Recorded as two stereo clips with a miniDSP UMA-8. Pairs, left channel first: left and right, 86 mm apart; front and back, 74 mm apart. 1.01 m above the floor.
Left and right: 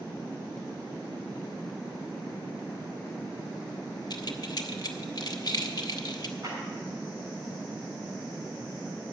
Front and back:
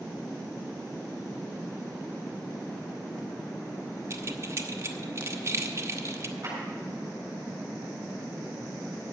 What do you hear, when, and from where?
4.1 s keys jangling: 130° left, 0.9 m
6.4 s a clap: 135° right, 7 m